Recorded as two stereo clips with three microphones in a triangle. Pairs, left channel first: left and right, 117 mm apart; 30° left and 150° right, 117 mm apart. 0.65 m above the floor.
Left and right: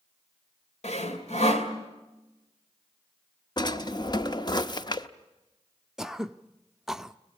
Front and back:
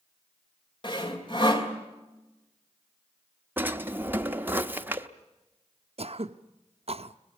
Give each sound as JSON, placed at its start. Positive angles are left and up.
{"t": 0.8, "sound": "sawing", "azimuth_deg": 75, "distance_m": 2.5}
{"t": 3.6, "sound": "a drawer", "azimuth_deg": 140, "distance_m": 0.8}
{"t": 6.0, "sound": "throat clearing", "azimuth_deg": -175, "distance_m": 0.5}